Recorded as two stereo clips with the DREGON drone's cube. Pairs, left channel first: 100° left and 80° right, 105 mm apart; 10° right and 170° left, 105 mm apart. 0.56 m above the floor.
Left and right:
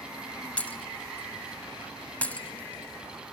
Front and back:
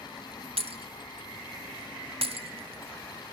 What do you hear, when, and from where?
0.6 s breaking glass: 175° left, 1.0 m